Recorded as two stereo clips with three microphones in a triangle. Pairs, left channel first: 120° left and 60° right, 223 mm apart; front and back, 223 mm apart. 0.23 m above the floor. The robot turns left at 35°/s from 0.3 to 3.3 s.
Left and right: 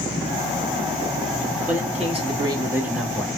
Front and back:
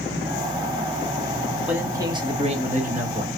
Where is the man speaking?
100° right, 1.5 m; by 3.3 s 155° right, 1.5 m.